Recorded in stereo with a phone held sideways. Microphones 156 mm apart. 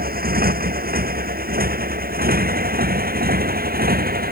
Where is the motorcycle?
80° right.